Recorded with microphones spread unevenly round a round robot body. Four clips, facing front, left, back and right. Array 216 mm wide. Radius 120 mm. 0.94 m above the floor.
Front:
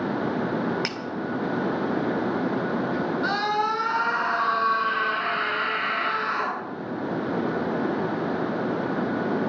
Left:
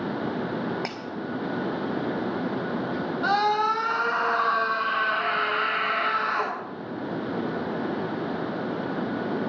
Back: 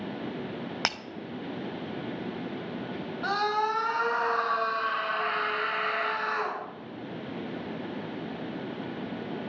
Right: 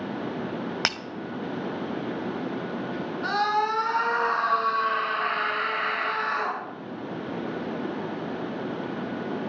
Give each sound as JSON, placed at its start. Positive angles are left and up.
{"t": 0.8, "sound": "breaking glass", "azimuth_deg": -110, "distance_m": 0.9}
{"t": 3.2, "sound": "a scream", "azimuth_deg": 85, "distance_m": 6.5}